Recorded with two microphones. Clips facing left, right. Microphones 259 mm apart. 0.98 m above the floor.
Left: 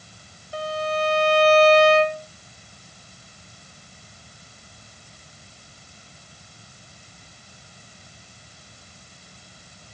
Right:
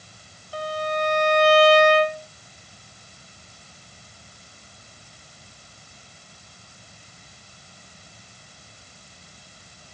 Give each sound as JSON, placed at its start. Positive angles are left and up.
{"t": 0.5, "sound": "a violin", "side_deg": 20, "distance_m": 1.2}